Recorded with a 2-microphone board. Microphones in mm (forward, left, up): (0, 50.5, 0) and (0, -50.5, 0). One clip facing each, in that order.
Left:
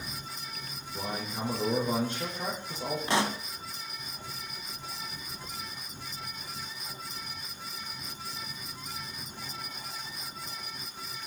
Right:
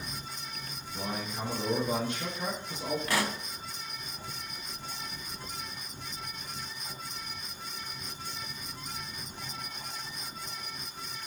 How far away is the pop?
About 0.8 m.